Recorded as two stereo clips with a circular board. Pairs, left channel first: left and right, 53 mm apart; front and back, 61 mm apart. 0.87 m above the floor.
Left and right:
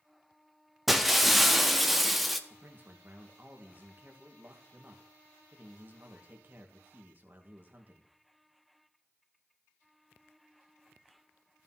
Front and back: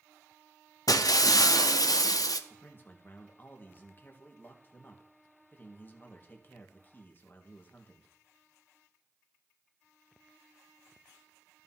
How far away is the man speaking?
About 1.5 m.